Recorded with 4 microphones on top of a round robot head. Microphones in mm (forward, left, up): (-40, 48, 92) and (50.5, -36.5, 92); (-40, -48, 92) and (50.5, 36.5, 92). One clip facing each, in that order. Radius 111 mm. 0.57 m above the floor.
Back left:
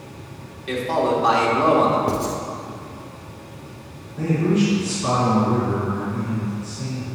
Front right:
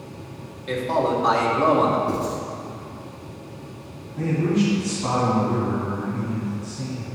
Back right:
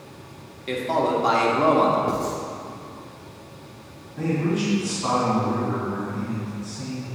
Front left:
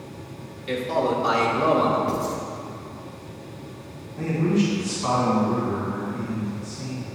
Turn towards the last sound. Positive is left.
turn(degrees=-65)